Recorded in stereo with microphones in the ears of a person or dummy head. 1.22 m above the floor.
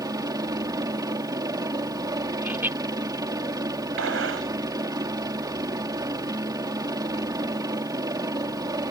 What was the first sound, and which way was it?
A helicopter, 20° right (ahead or behind).